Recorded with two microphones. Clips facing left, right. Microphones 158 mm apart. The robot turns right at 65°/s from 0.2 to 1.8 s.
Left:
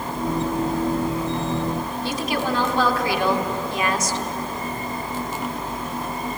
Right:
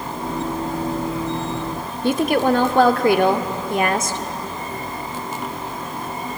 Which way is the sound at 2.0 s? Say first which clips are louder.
Right 9 dB; 55° right (ahead or behind).